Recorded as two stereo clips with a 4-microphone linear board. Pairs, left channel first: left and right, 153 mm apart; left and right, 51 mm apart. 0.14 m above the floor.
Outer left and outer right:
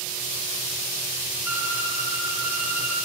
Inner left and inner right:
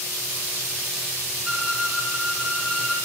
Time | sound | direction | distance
1.4 | a violin | 15° right (ahead or behind) | 1.0 m